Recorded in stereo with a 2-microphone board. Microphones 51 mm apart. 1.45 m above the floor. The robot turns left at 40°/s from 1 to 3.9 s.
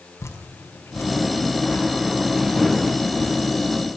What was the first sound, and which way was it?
Dripping, 70° left (ahead or behind).